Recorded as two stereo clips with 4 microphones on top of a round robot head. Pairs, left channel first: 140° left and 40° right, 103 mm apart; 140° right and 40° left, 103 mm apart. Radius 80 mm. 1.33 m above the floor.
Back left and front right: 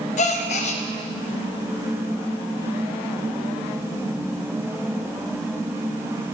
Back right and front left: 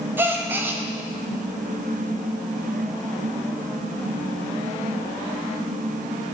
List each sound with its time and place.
0.2 s a gasp: 115° left, 0.5 m